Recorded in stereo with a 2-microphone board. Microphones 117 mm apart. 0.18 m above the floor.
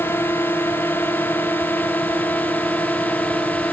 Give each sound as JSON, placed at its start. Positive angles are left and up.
{"t": 0.0, "sound": "a drone", "side_deg": 20}